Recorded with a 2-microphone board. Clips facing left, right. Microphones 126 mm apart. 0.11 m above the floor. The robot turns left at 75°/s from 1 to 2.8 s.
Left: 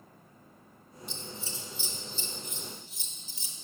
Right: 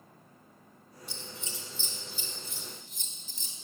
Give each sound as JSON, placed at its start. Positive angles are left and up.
{"t": 1.1, "sound": "scissors", "side_deg": 55, "distance_m": 2.5}